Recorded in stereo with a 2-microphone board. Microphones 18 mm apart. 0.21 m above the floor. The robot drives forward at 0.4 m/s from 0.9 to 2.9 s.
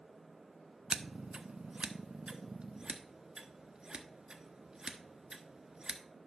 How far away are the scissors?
About 0.5 m.